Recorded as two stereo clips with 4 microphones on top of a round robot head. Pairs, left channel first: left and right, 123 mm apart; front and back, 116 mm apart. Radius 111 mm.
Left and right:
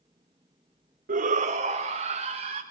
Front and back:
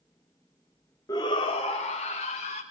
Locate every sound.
1.1 s a shout: 70° right, 0.7 m; by 2.6 s 45° right, 2.5 m